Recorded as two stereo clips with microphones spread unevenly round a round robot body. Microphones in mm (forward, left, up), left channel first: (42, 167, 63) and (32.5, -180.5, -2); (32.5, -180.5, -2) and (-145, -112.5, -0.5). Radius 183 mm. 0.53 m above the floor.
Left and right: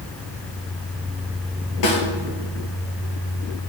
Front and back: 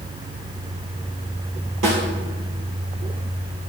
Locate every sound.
1.8 s a snare drum: 125° left, 2 m